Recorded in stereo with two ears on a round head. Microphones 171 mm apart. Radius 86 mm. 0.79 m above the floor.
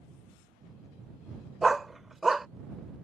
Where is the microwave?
I don't hear a microwave.